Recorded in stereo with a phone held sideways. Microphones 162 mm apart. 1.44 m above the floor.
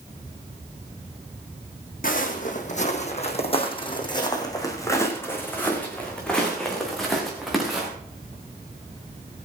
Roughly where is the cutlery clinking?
No cutlery clinking in this recording.